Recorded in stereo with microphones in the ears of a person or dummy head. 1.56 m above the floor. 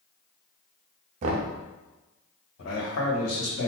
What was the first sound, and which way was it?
Knocking, 40° right (ahead or behind).